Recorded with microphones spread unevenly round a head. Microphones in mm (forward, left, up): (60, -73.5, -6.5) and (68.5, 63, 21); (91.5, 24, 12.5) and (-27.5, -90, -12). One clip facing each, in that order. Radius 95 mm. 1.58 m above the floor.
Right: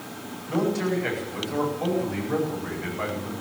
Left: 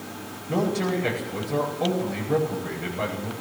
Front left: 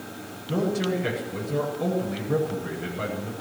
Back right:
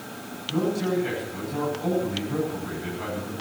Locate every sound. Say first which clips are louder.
0.5 s a man speaking: even, back right 1 dB; 25° left, 9.5 m